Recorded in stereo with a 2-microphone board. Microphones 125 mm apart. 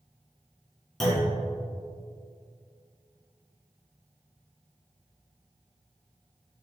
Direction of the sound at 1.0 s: Centre (ahead or behind).